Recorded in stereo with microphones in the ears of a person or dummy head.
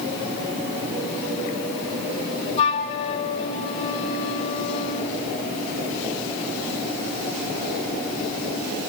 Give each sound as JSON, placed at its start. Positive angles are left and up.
{"t": 2.6, "sound": "a flute", "side_deg": 35, "distance_m": 3.0}